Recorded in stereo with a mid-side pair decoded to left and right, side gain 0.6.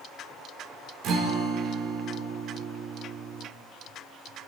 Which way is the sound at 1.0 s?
60° right.